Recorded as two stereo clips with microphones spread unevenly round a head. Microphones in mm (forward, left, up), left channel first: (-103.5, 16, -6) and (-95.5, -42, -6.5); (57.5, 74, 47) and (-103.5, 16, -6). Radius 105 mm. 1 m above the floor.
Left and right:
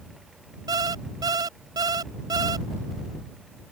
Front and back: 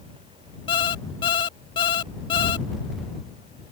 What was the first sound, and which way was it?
An alarm clock, 45° right.